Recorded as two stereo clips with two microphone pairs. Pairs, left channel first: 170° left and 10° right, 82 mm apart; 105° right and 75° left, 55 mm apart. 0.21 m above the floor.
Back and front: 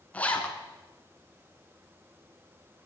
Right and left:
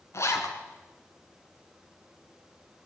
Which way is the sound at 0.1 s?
120° right.